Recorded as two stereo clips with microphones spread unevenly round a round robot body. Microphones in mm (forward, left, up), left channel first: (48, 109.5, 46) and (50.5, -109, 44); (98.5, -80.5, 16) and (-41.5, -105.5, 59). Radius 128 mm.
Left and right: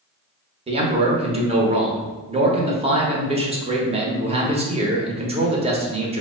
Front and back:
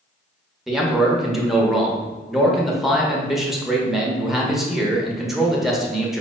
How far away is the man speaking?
About 0.9 m.